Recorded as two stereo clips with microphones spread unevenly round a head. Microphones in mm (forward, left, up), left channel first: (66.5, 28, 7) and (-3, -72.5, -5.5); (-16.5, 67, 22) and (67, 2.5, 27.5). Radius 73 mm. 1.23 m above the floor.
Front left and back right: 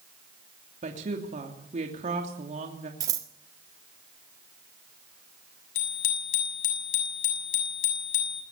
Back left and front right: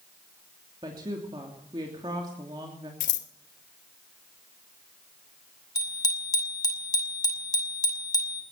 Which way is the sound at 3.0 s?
170° left.